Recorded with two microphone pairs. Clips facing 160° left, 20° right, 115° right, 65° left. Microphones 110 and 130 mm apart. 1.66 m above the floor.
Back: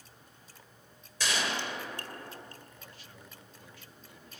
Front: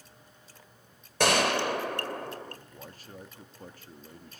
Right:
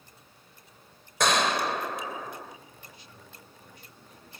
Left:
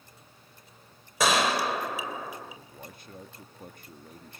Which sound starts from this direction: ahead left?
A man speaking, at 2.6 s.